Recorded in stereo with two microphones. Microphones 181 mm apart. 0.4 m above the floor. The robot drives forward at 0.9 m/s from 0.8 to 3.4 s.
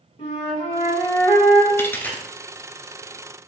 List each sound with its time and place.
0.2 s a flute: 35° left (ahead or behind), 1.6 m; by 1.7 s 25° left (ahead or behind), 2 m
1.8 s a dropped coin: 15° left (ahead or behind), 0.6 m; by 2.2 s 10° left (ahead or behind), 1.0 m